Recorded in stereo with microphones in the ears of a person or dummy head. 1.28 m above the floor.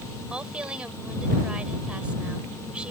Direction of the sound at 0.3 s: 5° right (ahead or behind).